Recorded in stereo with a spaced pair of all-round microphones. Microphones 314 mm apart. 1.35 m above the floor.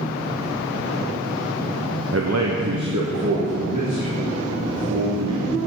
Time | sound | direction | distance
2.1 | a man speaking | 50° right (ahead or behind) | 0.6 m